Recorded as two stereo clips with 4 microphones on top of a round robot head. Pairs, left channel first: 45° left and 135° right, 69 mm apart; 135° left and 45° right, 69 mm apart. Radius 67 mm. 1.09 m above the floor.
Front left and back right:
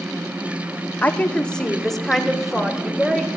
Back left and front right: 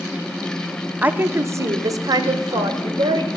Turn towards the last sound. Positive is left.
turn(degrees=-50)